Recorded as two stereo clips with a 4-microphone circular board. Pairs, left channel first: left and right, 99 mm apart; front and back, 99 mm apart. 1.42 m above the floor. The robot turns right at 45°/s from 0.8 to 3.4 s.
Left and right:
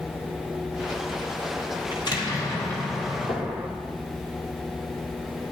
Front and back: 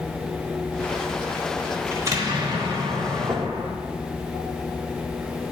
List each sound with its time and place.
1.9 s an explosion: 120° left, 1.1 m; by 3.7 s 175° right, 1.1 m
3.3 s knocking: 125° left, 0.9 m; by 3.5 s 130° left, 0.9 m